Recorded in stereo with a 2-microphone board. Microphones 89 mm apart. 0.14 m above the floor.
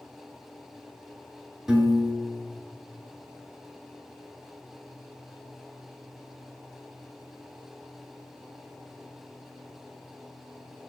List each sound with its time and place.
1.7 s a piano: 5° right (ahead or behind), 0.8 m